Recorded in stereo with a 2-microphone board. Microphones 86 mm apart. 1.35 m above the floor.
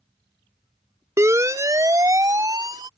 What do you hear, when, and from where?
1.2 s a siren: 35° right (ahead or behind); by 2.9 s 50° right (ahead or behind)